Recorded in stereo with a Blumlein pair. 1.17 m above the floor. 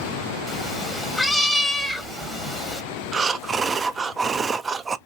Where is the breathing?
15° right, 0.7 m.